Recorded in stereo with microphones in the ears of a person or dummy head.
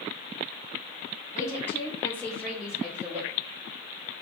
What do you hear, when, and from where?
1.3 s a woman speaking: 15° left (ahead or behind), 1.3 m; by 3.3 s 5° right (ahead or behind), 1.2 m